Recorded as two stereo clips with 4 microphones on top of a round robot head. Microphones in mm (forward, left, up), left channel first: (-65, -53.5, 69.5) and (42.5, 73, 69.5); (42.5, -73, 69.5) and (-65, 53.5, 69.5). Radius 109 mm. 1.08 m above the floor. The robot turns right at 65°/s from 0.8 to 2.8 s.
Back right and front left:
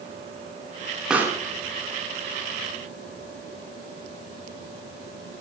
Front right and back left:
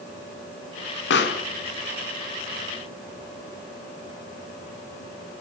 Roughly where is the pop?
Ahead right.